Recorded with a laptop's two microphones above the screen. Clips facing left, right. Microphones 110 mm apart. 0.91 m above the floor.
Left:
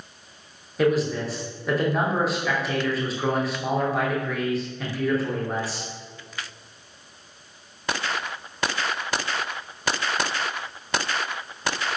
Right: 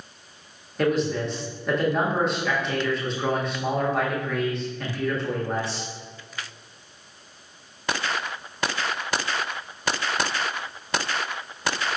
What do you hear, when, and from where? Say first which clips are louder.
0.8 s a man speaking: left 1 dB; 5° left (ahead or behind), 0.8 m